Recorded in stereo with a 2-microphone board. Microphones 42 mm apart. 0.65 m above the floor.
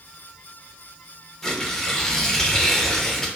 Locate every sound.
1.4 s tearing paper: 10° left (ahead or behind), 0.6 m